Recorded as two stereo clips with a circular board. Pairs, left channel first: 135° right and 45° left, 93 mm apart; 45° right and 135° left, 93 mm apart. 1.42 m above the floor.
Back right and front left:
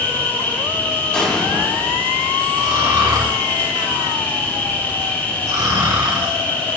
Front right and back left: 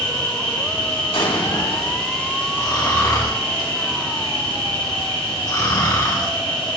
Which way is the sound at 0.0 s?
70° right.